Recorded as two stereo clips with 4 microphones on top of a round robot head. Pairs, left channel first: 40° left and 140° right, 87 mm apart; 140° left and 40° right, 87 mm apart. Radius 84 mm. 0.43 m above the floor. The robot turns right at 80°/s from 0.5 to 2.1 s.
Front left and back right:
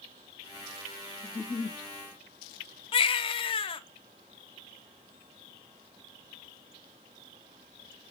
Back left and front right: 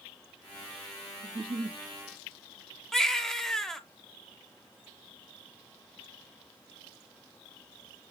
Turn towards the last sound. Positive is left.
turn(degrees=55)